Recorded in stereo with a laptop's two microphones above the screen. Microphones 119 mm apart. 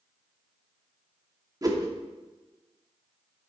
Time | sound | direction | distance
1.6 | a whoosh | 30° right (ahead or behind) | 1.0 m